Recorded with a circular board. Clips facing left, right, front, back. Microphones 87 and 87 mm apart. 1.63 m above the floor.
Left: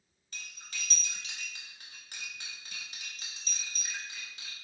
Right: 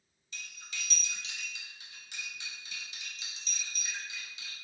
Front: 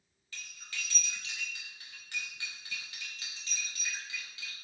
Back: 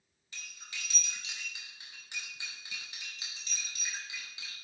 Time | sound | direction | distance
0.3 | cutlery clinking | 115° left | 1.3 m